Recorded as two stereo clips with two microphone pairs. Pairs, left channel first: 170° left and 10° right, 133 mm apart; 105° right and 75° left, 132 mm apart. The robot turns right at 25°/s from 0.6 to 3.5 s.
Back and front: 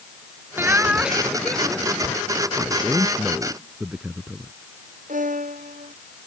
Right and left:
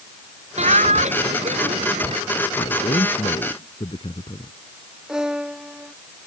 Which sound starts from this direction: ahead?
A violin, at 5.1 s.